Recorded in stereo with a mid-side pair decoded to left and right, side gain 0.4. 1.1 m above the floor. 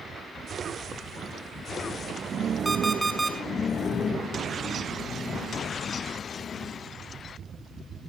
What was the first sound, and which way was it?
An alarm clock, 15° right.